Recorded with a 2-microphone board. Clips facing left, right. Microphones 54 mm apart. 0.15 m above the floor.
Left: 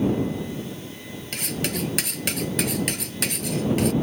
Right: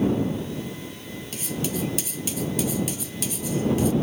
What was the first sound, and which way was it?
Cutlery clinking, 60° left (ahead or behind).